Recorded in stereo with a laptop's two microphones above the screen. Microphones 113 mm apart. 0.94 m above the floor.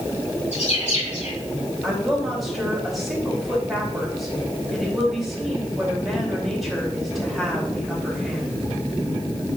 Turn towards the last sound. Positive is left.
turn(degrees=0)  # may be behind; listen again after turning